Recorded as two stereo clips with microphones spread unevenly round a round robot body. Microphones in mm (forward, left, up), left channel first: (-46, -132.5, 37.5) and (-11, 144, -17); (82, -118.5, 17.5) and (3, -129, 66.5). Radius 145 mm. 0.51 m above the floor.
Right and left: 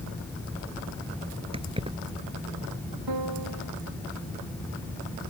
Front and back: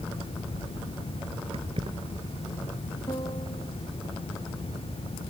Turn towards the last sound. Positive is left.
turn(degrees=70)